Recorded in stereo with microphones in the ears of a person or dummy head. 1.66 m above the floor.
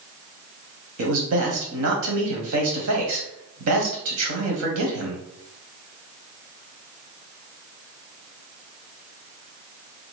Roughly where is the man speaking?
Right.